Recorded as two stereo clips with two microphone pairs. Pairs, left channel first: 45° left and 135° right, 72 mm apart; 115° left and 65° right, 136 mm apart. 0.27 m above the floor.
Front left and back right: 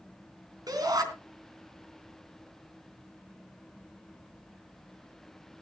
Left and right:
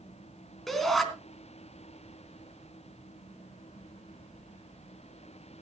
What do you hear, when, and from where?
0.7 s a shout: 155° right, 3.5 m